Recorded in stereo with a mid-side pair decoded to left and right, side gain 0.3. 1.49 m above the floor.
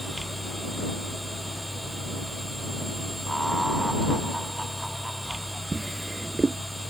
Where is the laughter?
5° right.